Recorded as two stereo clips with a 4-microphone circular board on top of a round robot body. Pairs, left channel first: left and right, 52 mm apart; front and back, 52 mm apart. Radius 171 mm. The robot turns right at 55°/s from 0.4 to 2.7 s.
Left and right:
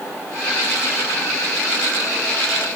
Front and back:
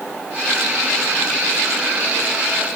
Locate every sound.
Only background noise.